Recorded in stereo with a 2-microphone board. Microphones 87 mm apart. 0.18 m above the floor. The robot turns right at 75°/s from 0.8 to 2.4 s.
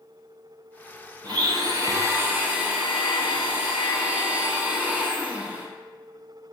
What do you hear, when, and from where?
1.2 s a blender: 110° right, 0.5 m; by 5.7 s 25° right, 0.5 m